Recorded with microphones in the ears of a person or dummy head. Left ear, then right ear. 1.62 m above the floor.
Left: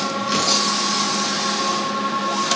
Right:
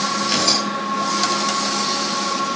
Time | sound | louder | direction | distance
0.2 | tearing paper | even | 25° right (ahead or behind) | 7.5 m